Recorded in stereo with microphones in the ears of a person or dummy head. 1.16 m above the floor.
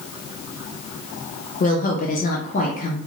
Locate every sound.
1.6 s a woman speaking: 40° left (ahead or behind), 0.7 m